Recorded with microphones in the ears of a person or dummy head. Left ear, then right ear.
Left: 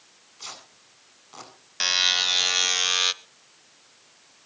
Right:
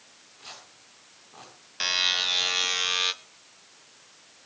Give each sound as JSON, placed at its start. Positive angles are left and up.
{"t": 0.4, "sound": "tearing paper", "side_deg": 85, "distance_m": 8.0}
{"t": 1.8, "sound": "a buzzer", "side_deg": 5, "distance_m": 0.7}